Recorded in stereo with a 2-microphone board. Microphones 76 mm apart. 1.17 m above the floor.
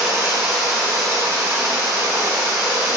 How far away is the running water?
About 2 m.